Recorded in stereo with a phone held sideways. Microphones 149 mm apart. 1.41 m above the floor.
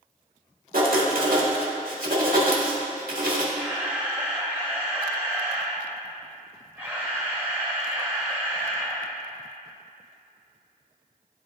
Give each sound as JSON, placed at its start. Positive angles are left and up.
{"t": 0.7, "sound": "writing", "side_deg": -80, "distance_m": 1.3}
{"t": 3.5, "sound": "a camera shutter", "side_deg": -10, "distance_m": 1.6}